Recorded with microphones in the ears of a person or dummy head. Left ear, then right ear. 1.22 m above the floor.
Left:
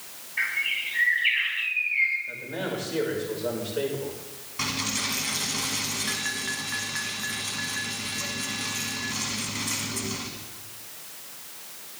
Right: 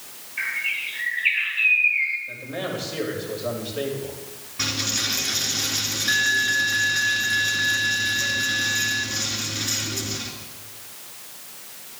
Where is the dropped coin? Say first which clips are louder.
Right 4 dB; 35° left (ahead or behind), 1.9 m.